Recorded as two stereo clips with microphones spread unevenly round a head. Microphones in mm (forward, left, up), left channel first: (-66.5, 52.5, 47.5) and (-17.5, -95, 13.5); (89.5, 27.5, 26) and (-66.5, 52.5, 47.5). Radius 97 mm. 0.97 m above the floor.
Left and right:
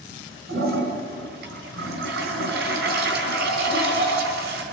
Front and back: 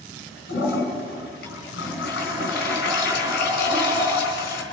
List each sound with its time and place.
0.5 s a toilet flushing: 45° right, 3.5 m